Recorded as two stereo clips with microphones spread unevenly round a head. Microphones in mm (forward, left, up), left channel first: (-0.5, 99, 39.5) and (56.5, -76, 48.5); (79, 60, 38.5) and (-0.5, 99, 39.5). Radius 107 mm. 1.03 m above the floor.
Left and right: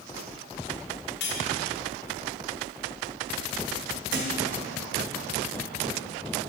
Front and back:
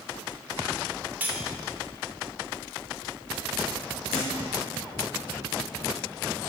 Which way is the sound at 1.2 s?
80° left.